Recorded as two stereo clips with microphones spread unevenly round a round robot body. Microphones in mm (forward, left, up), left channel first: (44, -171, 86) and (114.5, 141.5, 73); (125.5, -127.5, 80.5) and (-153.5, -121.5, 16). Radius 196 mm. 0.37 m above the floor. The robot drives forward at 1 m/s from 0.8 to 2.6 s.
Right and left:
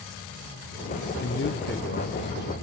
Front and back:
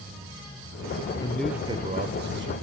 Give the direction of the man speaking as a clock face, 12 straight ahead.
3 o'clock.